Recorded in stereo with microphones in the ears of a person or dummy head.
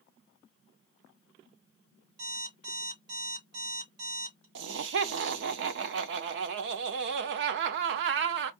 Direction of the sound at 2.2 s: 55° right (ahead or behind).